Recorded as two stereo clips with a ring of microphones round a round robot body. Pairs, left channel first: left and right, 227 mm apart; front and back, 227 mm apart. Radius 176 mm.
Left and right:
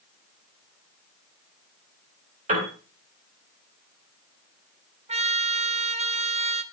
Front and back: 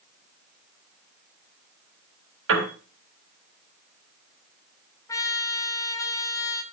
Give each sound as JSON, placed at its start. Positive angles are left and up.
{"t": 2.5, "sound": "a piano", "azimuth_deg": -155, "distance_m": 3.0}
{"t": 5.1, "sound": "a trumpet", "azimuth_deg": -60, "distance_m": 1.1}